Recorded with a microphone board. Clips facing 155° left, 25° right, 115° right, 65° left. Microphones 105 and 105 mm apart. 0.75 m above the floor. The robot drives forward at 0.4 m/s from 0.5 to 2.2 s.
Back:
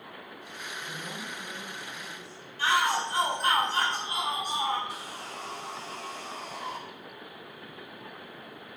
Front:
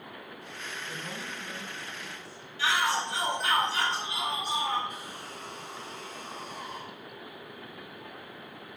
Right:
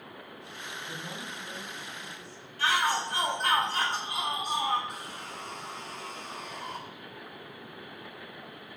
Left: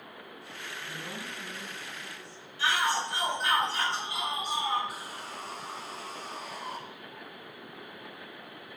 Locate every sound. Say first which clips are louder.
0.8 s a woman speaking: even, even; 175° left, 4.5 m
2.6 s a shout: back 2 dB, right 1 dB; 160° right, 4.5 m
4.9 s sawing: back 2 dB, even; 155° left, 1.2 m